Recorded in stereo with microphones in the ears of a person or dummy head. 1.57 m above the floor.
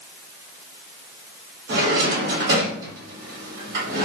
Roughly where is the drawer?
Right.